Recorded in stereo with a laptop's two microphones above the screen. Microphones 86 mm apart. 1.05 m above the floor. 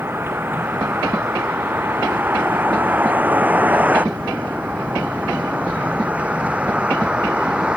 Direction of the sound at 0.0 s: 25° right (ahead or behind).